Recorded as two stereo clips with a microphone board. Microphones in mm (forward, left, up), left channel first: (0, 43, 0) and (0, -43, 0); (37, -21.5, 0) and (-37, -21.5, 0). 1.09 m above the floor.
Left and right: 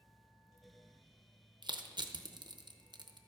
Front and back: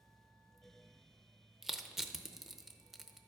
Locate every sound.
1.6 s crushing: 95° right, 0.7 m